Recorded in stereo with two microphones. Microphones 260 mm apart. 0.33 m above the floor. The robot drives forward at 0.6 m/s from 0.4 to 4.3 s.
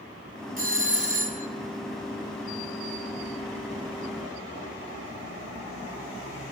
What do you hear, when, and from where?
0.6 s a doorbell: 30° right (ahead or behind), 1.8 m; by 1.5 s 25° right (ahead or behind), 2 m